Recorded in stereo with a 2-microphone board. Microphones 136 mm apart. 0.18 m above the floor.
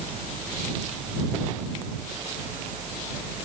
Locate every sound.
Only background noise.